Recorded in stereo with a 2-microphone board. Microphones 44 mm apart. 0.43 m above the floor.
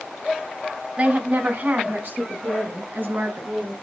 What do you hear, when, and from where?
1.0 s a woman speaking: 35° right (ahead or behind), 2.5 m; by 3.7 s 55° right (ahead or behind), 5 m